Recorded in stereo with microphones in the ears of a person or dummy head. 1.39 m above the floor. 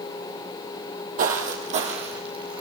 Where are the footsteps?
45° right (ahead or behind), 2 m; by 2.6 s 20° right (ahead or behind), 3 m.